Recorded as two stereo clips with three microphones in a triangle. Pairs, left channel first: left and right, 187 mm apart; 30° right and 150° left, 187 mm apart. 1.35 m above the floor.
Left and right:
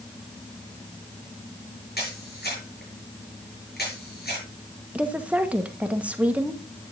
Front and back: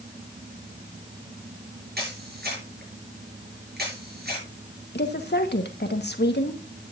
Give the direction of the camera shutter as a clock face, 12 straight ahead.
8 o'clock.